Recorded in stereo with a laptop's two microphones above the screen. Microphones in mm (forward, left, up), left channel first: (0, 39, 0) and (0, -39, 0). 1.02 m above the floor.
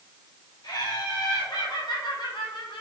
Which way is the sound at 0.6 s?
60° left (ahead or behind).